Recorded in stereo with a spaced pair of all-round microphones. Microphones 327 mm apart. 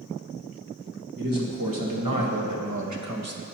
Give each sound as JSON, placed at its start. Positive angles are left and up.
{"t": 1.2, "sound": "a man speaking", "side_deg": -85, "distance_m": 1.7}